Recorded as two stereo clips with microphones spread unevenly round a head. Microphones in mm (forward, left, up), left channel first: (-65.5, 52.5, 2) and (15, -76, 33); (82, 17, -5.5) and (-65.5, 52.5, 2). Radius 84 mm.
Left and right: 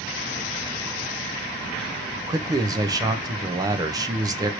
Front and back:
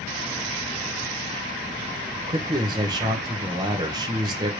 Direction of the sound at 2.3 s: 130° right.